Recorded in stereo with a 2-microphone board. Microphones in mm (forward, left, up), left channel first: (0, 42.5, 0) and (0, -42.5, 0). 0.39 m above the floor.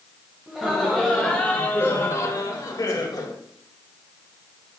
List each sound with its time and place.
0.5 s laughter: 5° right (ahead or behind), 1.9 m; by 3.4 s 50° left (ahead or behind), 2 m